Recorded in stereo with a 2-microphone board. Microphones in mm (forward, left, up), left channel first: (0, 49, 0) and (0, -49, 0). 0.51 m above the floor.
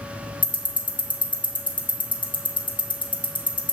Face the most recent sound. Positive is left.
turn(degrees=55)  # may be behind; listen again after turning